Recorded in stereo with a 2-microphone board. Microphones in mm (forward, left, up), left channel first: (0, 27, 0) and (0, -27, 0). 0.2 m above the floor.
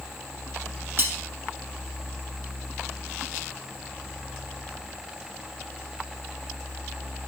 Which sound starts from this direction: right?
Cutlery clinking, at 1.0 s.